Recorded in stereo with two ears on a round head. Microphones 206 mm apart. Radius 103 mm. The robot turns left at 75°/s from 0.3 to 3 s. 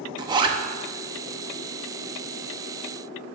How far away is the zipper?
About 0.7 m.